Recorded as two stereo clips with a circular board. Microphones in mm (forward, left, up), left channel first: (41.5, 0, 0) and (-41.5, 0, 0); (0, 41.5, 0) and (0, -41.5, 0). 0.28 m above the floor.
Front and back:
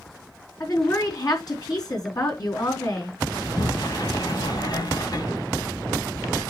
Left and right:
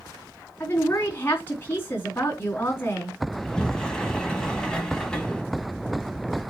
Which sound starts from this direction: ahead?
A sliding door, at 3.3 s.